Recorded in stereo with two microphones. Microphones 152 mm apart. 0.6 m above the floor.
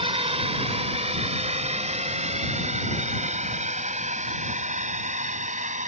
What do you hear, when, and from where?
0.0 s a drone: 40° right (ahead or behind); by 5.9 s 50° right (ahead or behind)